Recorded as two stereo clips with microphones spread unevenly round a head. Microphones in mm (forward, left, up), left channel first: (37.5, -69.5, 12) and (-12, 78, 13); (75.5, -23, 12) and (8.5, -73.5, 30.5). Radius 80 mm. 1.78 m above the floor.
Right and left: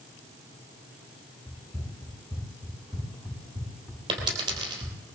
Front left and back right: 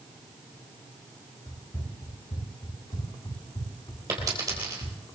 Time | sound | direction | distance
1.5 | running footsteps | straight ahead | 3.5 m
4.1 | a dropped coin | 165° left | 3 m